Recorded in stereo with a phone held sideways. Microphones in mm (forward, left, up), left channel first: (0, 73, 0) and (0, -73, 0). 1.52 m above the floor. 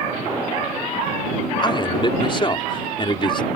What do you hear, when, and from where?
1.6 s a man speaking: 35° left (ahead or behind)